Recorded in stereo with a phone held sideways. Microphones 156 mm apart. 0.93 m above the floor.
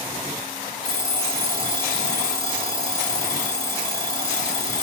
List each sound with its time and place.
0.8 s an alarm clock: 35° right (ahead or behind), 1.8 m